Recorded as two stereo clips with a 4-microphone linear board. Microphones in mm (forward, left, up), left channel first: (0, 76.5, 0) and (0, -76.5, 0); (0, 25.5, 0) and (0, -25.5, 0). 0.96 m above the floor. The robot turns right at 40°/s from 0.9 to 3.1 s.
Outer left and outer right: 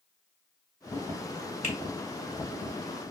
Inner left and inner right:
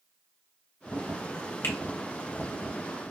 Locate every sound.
1.6 s a finger snap: 50° left (ahead or behind), 1.4 m; by 1.8 s 55° left (ahead or behind), 1.4 m